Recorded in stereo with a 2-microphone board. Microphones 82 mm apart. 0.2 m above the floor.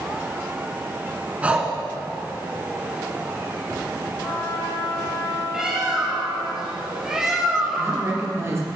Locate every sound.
1.4 s breathing: 15° right (ahead or behind), 1.8 m
4.2 s a trumpet: 60° left (ahead or behind), 3 m
5.5 s a bird: 5° right (ahead or behind), 3 m
7.8 s a woman speaking: 35° right (ahead or behind), 4 m